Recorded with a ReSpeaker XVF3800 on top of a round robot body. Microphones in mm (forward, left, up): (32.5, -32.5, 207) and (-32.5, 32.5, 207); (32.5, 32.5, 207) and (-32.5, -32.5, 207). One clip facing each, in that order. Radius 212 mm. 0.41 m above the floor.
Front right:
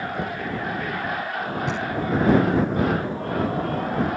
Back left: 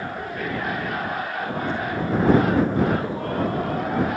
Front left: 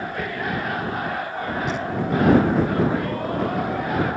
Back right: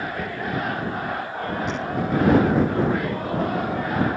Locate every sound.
0.1 s knocking: 50° right
1.7 s knocking: 40° right